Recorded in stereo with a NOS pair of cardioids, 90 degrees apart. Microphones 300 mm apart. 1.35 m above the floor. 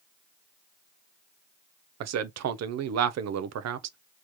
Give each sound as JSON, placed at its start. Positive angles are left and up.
{"t": 2.0, "sound": "a man speaking", "azimuth_deg": -60, "distance_m": 0.7}